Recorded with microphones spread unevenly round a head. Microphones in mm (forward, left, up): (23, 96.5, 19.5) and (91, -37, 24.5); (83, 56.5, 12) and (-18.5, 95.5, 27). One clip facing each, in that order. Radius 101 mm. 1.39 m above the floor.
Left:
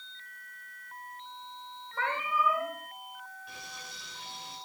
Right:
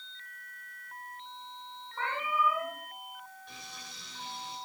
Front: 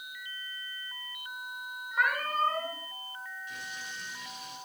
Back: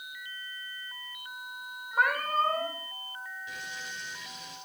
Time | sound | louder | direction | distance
1.9 | a cat meowing | left 1 dB, back 2 dB | 105° left | 5.5 m
3.5 | frying | left 1 dB, back 1 dB | 155° right | 8.5 m